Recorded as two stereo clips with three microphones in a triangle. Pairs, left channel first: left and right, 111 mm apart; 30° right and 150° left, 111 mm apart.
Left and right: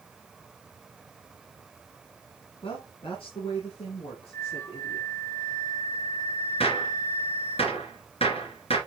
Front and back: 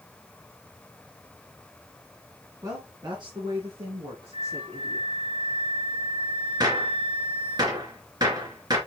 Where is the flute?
155° left, 2 m.